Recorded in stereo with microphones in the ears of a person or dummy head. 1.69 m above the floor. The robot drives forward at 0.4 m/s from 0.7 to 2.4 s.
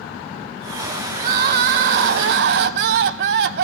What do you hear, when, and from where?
1.2 s crying: 45° right (ahead or behind), 0.9 m; by 3.6 s 55° right (ahead or behind), 0.7 m